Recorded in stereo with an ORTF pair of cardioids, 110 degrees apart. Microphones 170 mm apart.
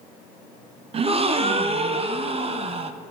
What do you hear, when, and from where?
0.9 s a gasp: 40° right, 0.7 m